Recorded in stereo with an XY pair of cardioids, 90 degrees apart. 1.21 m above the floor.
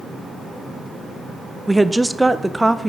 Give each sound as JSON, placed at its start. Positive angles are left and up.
{"t": 1.7, "sound": "a woman speaking", "azimuth_deg": -10, "distance_m": 0.5}